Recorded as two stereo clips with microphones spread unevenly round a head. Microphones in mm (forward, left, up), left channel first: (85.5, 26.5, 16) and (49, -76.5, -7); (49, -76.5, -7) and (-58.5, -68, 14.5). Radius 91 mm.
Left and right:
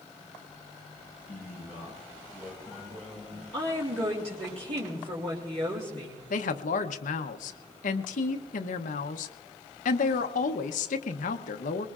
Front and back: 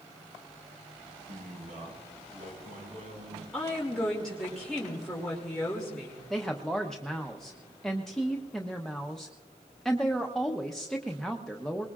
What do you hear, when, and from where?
1.3 s a man speaking: 170° left, 5.5 m
3.5 s a woman speaking: 85° right, 2.5 m
6.3 s a woman speaking: 85° left, 0.8 m